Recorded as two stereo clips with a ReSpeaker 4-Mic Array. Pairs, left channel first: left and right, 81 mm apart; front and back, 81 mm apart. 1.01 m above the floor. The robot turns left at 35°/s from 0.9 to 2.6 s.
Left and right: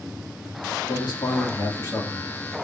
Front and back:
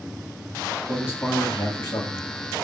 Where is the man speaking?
65° left, 1.5 m; by 2.2 s 20° left, 1.5 m.